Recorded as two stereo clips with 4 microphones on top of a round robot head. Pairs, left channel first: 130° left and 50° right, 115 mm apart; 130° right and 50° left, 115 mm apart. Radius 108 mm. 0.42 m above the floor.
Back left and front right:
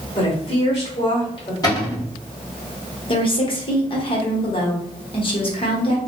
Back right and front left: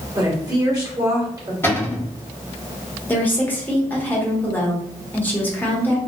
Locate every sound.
0.1 s a woman speaking: 100° left, 1.6 m
1.6 s a cupboard door: 170° left, 1.7 m
3.1 s a woman speaking: 160° left, 1.2 m